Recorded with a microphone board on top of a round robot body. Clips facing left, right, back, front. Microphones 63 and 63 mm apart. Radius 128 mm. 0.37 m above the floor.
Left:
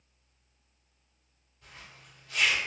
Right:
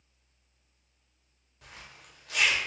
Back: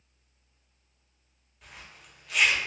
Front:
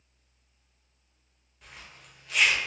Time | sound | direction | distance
1.6 | a zipper | 90° right | 0.9 m